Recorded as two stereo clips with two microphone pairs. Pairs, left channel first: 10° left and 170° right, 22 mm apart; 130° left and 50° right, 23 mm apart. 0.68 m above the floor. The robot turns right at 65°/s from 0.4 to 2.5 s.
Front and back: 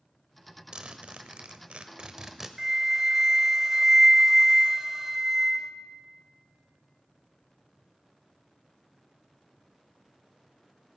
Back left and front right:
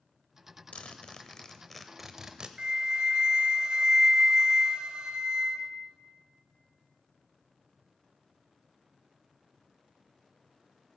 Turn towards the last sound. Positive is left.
turn(degrees=-100)